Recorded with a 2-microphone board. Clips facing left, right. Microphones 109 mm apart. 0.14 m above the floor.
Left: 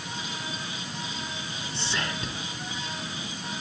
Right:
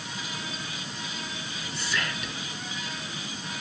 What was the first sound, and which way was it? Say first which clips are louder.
Whispering: even; 30° left (ahead or behind).